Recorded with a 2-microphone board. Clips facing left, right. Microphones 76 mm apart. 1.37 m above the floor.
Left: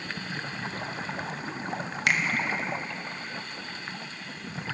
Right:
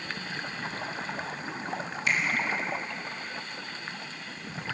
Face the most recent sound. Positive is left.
turn(degrees=65)  # may be behind; listen again after turning